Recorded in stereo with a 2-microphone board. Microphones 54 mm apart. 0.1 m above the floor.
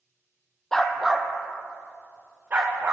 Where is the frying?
No frying in this recording.